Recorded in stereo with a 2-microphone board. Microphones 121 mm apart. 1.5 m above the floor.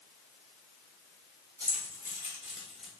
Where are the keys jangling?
35° right (ahead or behind), 1.4 m; by 2.9 s centre (ahead or behind), 1.1 m.